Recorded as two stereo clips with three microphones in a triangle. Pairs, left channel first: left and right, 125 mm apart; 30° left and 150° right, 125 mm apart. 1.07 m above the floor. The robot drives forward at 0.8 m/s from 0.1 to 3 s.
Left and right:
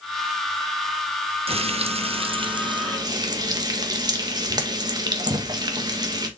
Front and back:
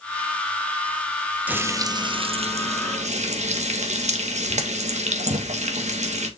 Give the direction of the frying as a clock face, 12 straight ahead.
3 o'clock.